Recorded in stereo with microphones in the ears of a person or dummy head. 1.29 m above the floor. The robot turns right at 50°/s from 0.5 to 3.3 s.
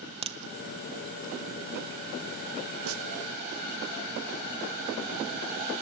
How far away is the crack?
About 0.6 m.